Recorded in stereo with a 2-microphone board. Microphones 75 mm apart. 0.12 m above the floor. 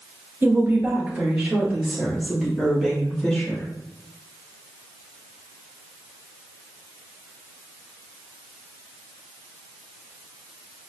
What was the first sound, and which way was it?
A woman speaking, 30° right (ahead or behind).